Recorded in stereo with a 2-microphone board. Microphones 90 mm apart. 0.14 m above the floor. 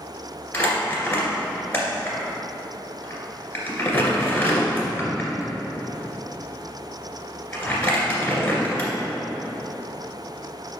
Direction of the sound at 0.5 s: 20° left (ahead or behind).